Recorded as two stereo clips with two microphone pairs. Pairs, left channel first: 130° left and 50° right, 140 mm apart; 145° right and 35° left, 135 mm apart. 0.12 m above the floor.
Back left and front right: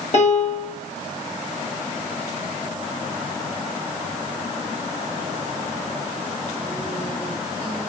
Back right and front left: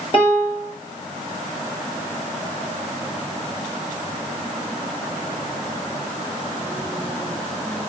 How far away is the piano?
About 8 m.